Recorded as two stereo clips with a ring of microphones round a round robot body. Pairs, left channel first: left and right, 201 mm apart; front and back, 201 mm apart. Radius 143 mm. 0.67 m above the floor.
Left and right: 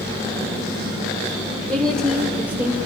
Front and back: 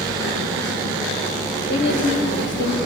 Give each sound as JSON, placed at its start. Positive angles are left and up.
{"t": 1.7, "sound": "a woman speaking", "azimuth_deg": 5, "distance_m": 2.5}